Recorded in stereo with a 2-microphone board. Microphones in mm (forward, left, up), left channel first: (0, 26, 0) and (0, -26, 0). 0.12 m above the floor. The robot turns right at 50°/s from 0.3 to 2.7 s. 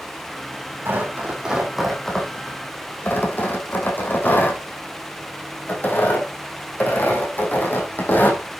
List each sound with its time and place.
0.8 s tearing paper: 50° right (ahead or behind), 4.5 m; by 8.4 s 40° left (ahead or behind), 4.5 m